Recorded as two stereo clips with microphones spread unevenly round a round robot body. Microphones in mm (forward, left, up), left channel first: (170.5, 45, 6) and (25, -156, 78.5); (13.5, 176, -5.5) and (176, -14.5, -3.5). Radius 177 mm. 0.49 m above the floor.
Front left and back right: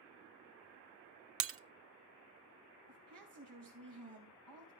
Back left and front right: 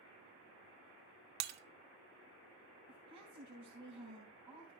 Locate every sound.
1.4 s breaking glass: 85° right, 0.7 m
2.9 s a woman speaking: 135° right, 3 m